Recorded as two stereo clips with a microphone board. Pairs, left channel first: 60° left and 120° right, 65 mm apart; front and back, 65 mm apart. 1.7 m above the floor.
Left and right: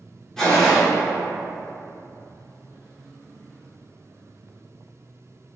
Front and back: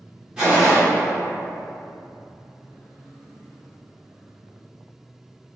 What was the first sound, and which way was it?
A gunshot, 130° left.